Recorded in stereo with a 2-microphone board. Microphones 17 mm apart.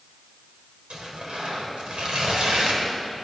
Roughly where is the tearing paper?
Right.